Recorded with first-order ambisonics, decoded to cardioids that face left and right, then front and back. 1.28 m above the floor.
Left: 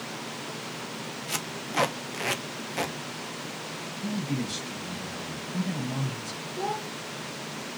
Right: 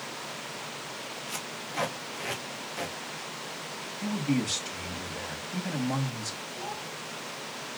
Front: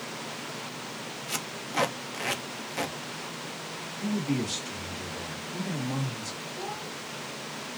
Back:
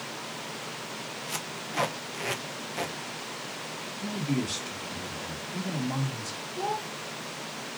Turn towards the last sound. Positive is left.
turn(degrees=125)